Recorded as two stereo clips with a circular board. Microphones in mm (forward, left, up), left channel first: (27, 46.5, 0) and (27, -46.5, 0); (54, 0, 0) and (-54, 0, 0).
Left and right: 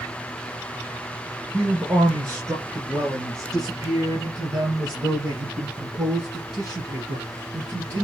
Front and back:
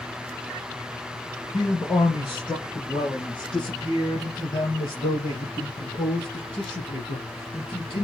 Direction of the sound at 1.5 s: 40° right.